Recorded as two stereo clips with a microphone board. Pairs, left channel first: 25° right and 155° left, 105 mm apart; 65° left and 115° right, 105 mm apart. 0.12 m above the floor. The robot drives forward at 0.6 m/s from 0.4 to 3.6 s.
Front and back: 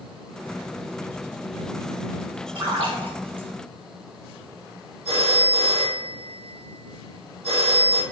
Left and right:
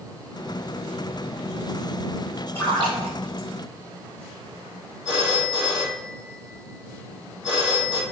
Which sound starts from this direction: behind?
A phone ringing, at 5.0 s.